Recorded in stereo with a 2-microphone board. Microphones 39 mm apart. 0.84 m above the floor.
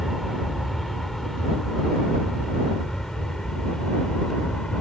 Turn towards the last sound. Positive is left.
turn(degrees=25)  # may be behind; listen again after turning